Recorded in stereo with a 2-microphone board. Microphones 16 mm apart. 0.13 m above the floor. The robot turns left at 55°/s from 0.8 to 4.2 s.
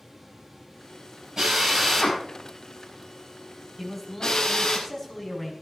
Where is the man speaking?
5° right (ahead or behind), 6.5 m; by 5.5 s 15° left (ahead or behind), 6.5 m.